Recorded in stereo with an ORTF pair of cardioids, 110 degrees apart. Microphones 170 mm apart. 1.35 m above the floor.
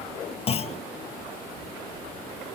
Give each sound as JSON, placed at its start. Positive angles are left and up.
{"t": 0.5, "sound": "a clunk", "azimuth_deg": 35}